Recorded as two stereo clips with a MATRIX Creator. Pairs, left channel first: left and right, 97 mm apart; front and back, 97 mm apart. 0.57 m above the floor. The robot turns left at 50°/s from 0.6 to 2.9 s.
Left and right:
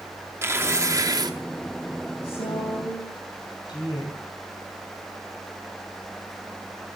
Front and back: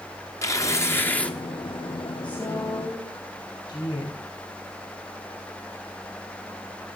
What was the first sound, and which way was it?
Tearing paper, 35° right.